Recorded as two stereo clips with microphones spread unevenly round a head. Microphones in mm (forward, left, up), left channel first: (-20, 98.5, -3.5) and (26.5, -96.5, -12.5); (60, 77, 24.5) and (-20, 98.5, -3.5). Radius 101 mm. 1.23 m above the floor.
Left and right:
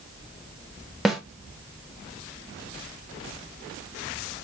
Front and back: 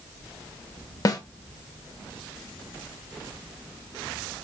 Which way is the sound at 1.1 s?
15° left.